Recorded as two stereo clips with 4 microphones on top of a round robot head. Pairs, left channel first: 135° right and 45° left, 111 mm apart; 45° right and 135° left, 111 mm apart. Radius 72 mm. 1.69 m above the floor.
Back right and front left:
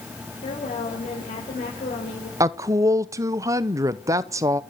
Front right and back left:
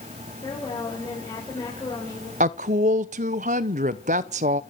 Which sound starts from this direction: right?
A woman speaking, at 0.4 s.